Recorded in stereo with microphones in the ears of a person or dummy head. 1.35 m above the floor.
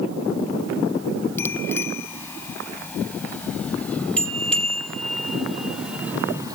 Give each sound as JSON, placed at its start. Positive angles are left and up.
{"t": 1.4, "sound": "a bicycle bell", "side_deg": 20}